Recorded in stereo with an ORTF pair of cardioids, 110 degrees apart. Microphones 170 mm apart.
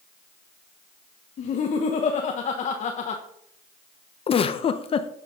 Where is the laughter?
50° left, 1.2 m.